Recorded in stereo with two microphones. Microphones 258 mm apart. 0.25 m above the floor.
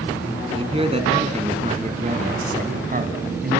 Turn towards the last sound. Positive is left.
turn(degrees=-40)  # may be behind; listen again after turning